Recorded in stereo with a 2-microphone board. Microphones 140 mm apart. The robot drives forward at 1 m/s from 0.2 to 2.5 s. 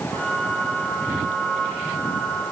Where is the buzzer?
No buzzer in this recording.